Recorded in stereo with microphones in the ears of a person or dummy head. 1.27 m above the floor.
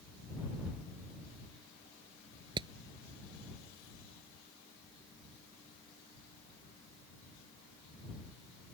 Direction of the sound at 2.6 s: 25° right (ahead or behind).